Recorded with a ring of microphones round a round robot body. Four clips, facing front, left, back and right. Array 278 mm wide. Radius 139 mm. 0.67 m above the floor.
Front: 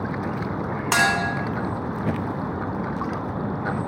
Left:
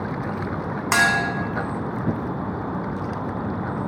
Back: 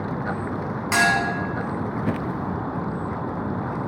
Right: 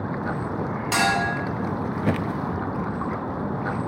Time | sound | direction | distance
0.9 | a clink | 45° left | 0.7 m